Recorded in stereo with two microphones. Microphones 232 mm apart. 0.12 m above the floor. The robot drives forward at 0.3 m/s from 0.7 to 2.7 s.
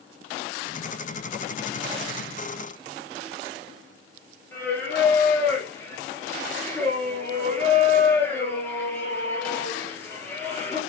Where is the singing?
10° left (ahead or behind), 1.4 m.